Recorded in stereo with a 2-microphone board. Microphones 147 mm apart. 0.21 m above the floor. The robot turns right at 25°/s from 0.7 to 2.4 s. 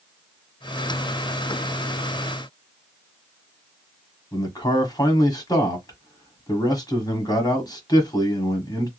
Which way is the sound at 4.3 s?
30° left (ahead or behind).